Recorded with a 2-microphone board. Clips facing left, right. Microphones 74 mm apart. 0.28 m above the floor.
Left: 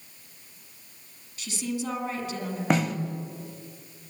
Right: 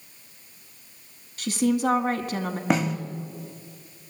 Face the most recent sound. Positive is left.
turn(degrees=0)  # may be behind; listen again after turning